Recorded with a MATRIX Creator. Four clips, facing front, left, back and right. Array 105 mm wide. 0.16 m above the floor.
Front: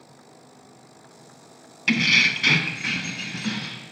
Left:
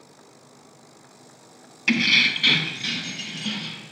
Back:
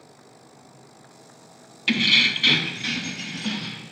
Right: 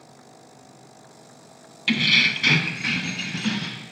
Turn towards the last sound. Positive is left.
turn(degrees=-75)